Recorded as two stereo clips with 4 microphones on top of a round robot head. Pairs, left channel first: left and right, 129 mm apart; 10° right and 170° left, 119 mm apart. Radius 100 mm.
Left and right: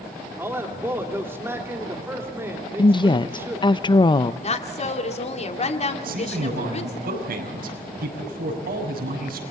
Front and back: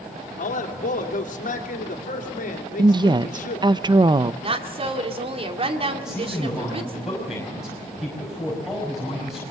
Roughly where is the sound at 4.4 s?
Behind left.